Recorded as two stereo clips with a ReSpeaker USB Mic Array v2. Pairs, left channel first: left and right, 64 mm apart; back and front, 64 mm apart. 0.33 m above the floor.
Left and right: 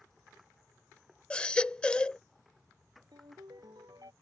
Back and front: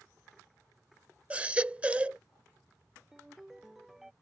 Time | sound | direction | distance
1.3 | a baby crying | 35° left | ?
3.1 | a ringtone | 85° right | ?